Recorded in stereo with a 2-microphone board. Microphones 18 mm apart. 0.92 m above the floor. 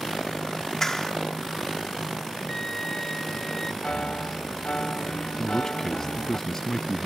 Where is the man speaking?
25° left (ahead or behind).